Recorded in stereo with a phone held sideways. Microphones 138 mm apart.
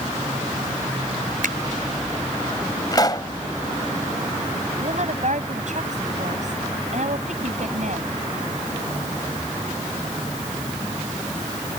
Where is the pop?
30° left (ahead or behind).